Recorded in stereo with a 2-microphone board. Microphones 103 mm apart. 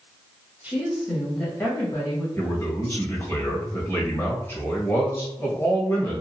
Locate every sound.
0.6 s a woman speaking: 10° right (ahead or behind), 1.2 m; by 2.3 s 40° left (ahead or behind), 1.5 m
2.4 s a man speaking: 25° left (ahead or behind), 1.4 m